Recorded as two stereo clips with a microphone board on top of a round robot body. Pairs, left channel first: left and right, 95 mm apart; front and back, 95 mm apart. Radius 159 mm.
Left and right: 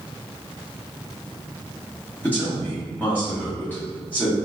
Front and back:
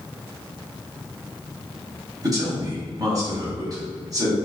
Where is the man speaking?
155° left, 1.8 m.